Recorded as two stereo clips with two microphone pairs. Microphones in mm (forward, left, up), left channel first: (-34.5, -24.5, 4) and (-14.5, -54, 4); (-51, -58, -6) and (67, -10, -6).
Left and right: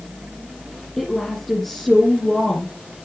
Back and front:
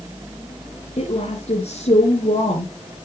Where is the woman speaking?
155° right, 2.5 m.